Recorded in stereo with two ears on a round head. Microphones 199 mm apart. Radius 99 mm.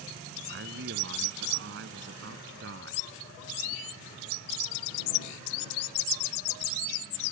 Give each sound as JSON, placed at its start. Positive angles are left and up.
{"t": 0.5, "sound": "a man speaking", "side_deg": -55}